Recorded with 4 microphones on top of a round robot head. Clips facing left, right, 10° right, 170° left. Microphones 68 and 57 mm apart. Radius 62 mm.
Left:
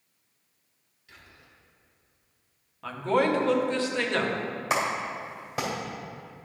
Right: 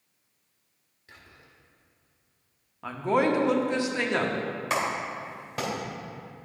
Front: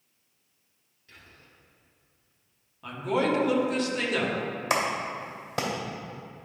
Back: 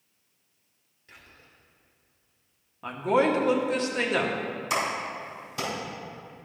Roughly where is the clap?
Ahead.